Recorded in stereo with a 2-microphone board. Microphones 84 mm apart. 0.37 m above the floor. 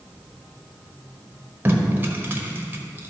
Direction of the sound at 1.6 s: 25° right (ahead or behind).